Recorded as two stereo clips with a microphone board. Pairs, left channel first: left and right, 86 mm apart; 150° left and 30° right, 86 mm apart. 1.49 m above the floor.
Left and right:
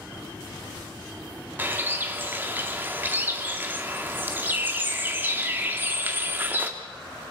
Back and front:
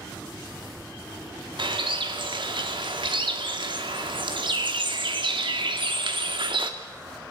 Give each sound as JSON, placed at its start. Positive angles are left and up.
{"t": 1.6, "sound": "a bird", "azimuth_deg": -25, "distance_m": 2.0}